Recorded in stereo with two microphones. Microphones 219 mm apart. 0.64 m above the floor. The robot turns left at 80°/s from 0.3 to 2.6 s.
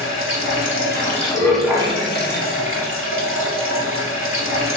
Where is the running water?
100° left, 1.0 m; by 4.8 s 85° right, 1.0 m.